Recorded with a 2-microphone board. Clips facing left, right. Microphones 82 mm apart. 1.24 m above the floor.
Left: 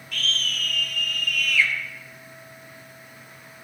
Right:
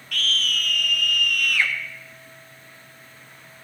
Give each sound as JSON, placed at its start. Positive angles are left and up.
{"t": 0.1, "sound": "a scream", "side_deg": -75, "distance_m": 1.3}